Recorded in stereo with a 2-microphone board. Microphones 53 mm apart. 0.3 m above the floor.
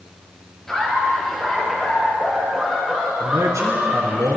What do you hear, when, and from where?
0.7 s laughter: 10° left (ahead or behind), 5 m; by 4.2 s 10° right (ahead or behind), 7.5 m
3.2 s a man speaking: 75° right (ahead or behind), 3.5 m